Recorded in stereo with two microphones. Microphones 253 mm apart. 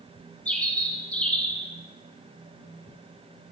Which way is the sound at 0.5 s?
5° left (ahead or behind).